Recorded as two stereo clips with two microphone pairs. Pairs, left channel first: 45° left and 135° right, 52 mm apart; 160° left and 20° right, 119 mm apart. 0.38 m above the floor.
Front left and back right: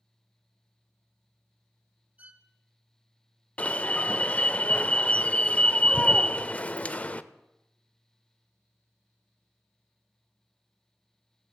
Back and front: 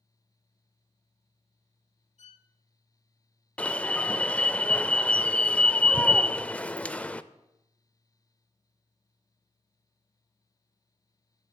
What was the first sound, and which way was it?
A violin, 170° left.